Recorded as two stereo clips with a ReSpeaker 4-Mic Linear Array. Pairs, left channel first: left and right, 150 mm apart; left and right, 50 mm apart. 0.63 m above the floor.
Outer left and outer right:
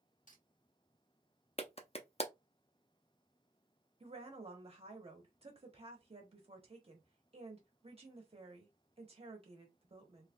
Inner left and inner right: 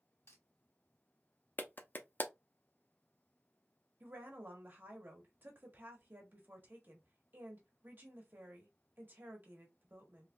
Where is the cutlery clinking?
60° left (ahead or behind), 1.0 m.